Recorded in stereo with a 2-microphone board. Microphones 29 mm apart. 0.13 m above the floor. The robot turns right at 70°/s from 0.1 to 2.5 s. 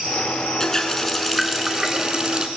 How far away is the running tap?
About 0.8 m.